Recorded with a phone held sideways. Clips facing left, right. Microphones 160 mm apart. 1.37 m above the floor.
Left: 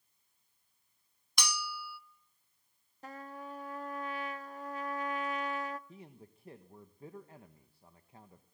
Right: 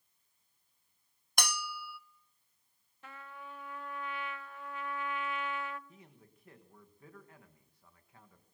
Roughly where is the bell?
Right.